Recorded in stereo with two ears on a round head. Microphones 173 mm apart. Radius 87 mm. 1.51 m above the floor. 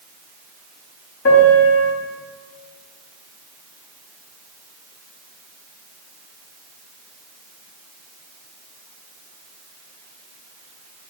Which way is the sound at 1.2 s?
60° left (ahead or behind).